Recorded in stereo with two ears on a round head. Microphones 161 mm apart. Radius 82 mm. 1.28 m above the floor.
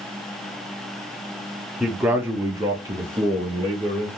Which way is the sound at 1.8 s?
5° right (ahead or behind).